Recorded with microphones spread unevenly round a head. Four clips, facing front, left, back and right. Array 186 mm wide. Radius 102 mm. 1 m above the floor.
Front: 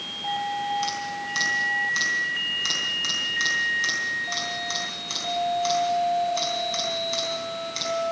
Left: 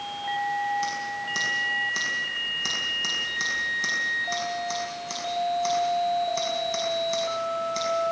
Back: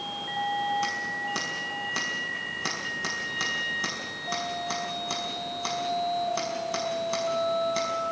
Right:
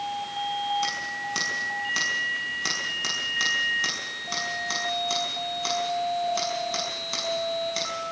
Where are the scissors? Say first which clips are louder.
Left 1 dB, front 2 dB; straight behind, 5.5 m.